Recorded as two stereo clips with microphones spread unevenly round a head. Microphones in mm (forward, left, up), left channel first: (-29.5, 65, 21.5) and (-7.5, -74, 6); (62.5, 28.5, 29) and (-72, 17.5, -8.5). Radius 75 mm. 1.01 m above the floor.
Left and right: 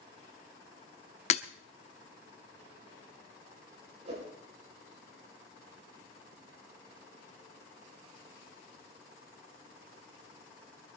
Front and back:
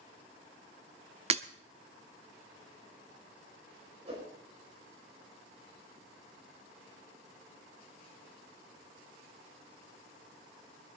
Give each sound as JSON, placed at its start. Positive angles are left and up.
{"t": 1.3, "sound": "breaking glass", "azimuth_deg": 135, "distance_m": 0.8}
{"t": 4.0, "sound": "a whoosh", "azimuth_deg": -125, "distance_m": 5.5}